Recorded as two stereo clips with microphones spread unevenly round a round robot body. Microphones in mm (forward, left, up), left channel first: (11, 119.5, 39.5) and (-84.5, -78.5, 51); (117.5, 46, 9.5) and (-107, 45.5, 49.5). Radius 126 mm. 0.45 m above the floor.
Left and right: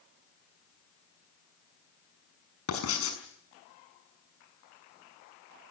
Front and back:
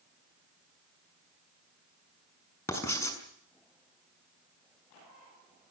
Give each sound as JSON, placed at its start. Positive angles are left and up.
{"t": 2.7, "sound": "writing", "azimuth_deg": 75, "distance_m": 6.0}